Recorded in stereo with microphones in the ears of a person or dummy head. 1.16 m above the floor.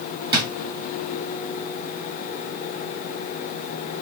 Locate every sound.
0.3 s a drawer: 20° right (ahead or behind), 1.0 m